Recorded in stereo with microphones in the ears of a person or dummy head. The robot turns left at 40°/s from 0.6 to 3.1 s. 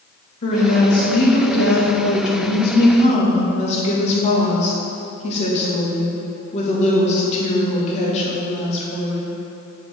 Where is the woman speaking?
135° left, 1.6 m; by 9.3 s 35° left, 1.6 m.